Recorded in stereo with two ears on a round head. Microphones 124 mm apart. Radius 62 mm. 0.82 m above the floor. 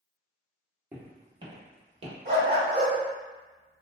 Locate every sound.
0.9 s footsteps: 15° right (ahead or behind), 0.9 m; by 2.1 s 50° right (ahead or behind), 1.2 m
2.2 s a dog barking: 50° right (ahead or behind), 1.2 m